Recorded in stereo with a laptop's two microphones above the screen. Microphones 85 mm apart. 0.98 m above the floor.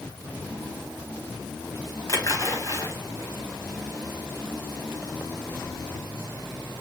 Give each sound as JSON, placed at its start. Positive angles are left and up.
{"t": 2.1, "sound": "a splash", "side_deg": 40, "distance_m": 1.1}